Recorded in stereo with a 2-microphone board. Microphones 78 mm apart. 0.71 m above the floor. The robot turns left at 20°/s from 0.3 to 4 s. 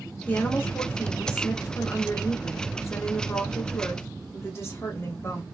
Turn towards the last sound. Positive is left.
turn(degrees=65)